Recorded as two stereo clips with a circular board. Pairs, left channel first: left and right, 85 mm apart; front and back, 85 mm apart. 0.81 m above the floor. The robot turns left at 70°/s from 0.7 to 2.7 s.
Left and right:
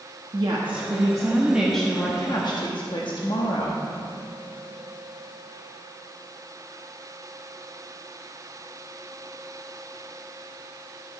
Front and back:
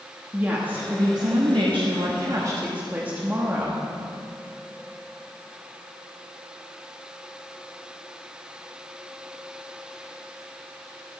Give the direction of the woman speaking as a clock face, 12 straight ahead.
4 o'clock.